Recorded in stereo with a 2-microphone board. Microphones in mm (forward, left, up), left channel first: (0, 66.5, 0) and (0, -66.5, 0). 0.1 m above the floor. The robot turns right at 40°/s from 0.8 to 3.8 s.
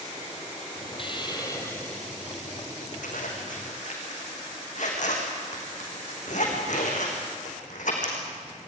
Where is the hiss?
130° left, 3 m; by 2.5 s 165° right, 3 m.